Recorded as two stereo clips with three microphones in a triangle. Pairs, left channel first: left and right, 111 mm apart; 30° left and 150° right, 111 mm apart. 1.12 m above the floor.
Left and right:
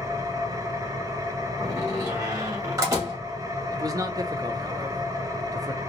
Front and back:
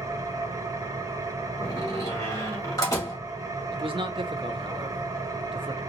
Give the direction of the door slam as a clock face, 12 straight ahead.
1 o'clock.